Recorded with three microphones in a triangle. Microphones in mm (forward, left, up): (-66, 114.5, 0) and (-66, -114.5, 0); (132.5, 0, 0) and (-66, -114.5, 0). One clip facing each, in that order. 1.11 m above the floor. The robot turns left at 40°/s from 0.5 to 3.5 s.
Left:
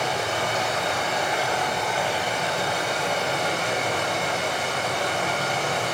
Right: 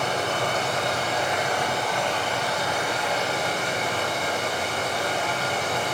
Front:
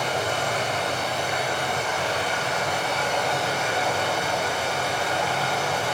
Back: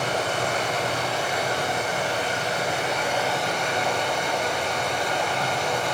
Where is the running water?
125° right, 4 m; by 5.9 s 115° left, 4 m.